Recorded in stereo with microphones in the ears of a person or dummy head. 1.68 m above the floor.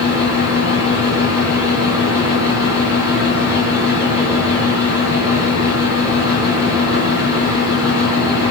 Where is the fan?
10° right (ahead or behind), 0.9 m.